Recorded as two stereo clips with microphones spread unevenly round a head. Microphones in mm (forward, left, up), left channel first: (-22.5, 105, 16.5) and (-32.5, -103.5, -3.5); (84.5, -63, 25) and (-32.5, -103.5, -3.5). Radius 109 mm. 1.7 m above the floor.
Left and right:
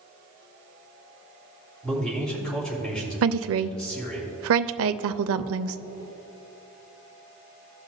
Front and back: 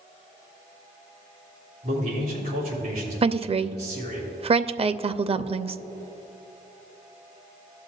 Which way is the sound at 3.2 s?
115° right.